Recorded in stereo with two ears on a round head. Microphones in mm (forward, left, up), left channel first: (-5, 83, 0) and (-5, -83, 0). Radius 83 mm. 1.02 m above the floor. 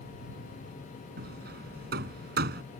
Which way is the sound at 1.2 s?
55° right (ahead or behind).